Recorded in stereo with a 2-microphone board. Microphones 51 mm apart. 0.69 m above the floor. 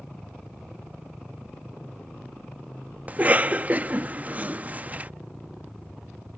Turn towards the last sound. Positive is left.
turn(degrees=-30)  # may be behind; listen again after turning